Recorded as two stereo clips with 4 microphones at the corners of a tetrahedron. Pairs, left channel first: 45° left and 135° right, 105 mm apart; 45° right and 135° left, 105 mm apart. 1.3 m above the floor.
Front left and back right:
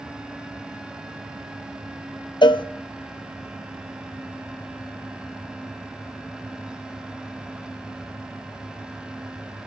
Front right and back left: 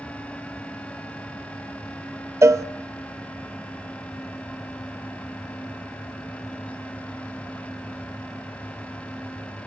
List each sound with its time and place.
2.4 s a cowbell: 80° left, 0.5 m